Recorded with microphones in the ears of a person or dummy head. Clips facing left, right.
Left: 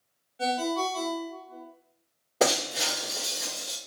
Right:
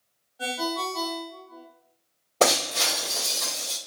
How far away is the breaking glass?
About 1.4 m.